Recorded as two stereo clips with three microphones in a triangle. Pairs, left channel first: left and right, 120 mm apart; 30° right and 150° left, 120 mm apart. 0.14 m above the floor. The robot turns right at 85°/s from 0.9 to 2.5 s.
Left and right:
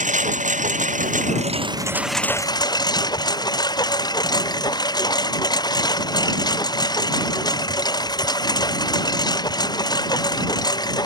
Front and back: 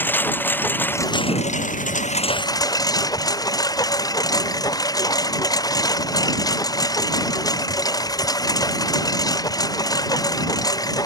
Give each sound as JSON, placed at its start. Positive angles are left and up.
{"t": 0.0, "sound": "a lawn mower", "azimuth_deg": -105}